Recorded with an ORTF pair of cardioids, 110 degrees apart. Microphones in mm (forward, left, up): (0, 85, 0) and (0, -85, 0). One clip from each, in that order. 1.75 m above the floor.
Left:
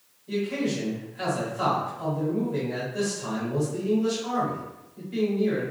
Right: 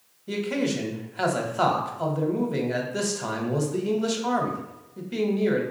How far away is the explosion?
No explosion in this recording.